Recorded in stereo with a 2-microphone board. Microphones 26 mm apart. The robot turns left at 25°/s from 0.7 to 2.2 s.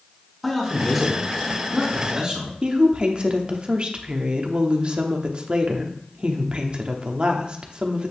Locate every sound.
0.4 s a man speaking: straight ahead, 3 m; by 2.5 s 40° right, 3 m
2.6 s a woman speaking: 40° right (ahead or behind), 1.0 m